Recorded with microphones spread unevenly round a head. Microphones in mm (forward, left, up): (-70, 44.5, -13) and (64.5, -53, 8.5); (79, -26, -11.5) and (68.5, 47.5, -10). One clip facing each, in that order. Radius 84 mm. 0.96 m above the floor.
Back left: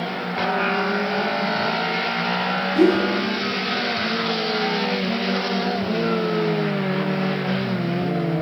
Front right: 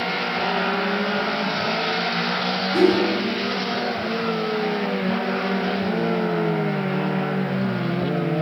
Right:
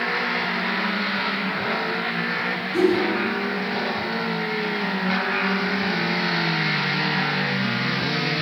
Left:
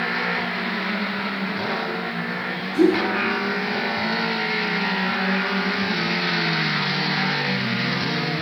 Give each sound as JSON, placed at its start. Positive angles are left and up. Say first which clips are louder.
{"t": 2.7, "sound": "a whoosh", "louder": "back left 1 dB, left 2 dB", "azimuth_deg": -35, "distance_m": 5.5}